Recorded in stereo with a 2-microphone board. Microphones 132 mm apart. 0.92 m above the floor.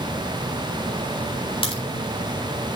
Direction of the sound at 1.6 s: 40° left (ahead or behind).